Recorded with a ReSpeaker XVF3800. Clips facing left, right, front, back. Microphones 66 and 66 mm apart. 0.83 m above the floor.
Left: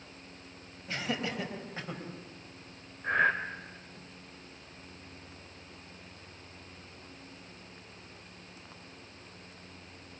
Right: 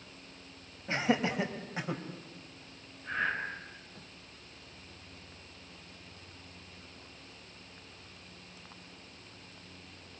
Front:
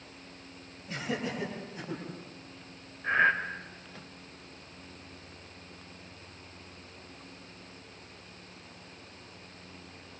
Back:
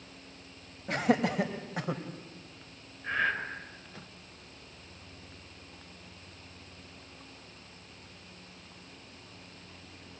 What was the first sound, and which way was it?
Laughter, 155° right.